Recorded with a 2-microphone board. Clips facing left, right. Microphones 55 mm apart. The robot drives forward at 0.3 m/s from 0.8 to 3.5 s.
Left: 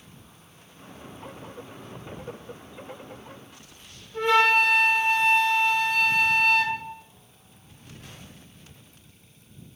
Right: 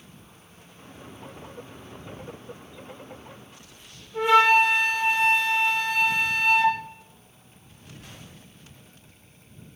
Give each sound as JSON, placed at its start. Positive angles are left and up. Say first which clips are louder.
{"t": 4.1, "sound": "a flute", "louder": "right 2 dB", "side_deg": -5, "distance_m": 0.6}